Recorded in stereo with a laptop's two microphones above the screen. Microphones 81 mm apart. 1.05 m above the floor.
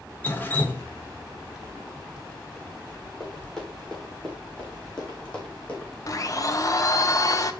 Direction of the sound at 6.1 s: 45° left (ahead or behind).